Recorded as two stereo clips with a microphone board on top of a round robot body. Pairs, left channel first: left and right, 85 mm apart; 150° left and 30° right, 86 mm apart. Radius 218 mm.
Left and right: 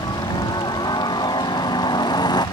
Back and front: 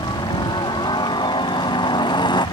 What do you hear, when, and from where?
0.0 s a helicopter: 125° left